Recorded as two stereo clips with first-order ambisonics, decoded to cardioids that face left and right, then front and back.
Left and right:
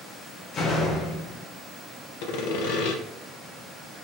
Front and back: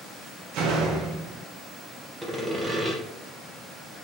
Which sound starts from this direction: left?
Sawing, at 2.2 s.